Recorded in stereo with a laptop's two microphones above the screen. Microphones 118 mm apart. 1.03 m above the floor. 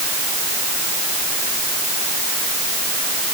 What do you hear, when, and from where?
Only background noise.